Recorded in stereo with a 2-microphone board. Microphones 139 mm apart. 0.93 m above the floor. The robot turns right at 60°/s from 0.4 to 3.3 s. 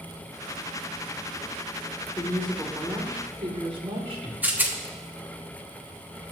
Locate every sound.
2.2 s a woman speaking: 155° left, 2.5 m; by 4.3 s 140° right, 2.5 m
4.4 s a rattle: 10° right (ahead or behind), 1.1 m